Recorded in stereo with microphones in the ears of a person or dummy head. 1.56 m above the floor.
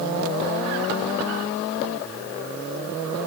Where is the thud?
No thud in this recording.